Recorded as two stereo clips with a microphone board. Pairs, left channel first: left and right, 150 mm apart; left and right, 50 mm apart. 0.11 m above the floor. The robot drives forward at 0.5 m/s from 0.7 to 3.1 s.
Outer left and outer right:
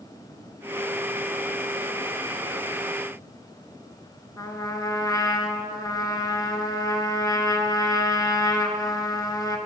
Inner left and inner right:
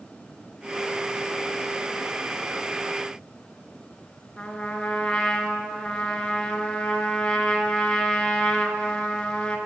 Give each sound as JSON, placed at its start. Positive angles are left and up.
{"t": 4.4, "sound": "a trumpet", "side_deg": 25, "distance_m": 0.7}